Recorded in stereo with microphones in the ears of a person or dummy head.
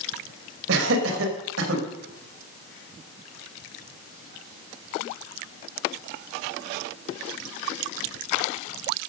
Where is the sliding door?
No sliding door in this recording.